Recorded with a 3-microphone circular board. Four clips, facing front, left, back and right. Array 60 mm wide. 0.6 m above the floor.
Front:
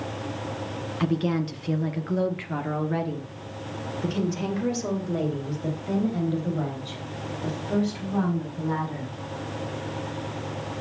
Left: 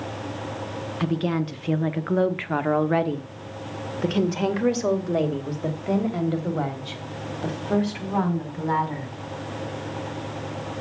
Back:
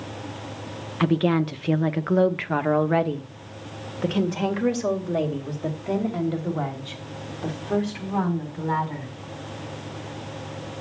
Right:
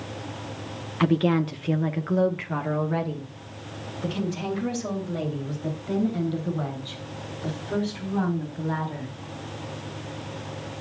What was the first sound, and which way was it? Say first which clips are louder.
A woman speaking: right 4 dB, back 5 dB; 145° right.